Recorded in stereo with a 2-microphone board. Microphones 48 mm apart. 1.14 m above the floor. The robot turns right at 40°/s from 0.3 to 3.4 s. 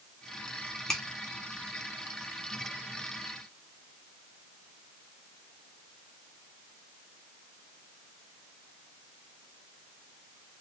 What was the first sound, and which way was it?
A finger snap, 10° left (ahead or behind).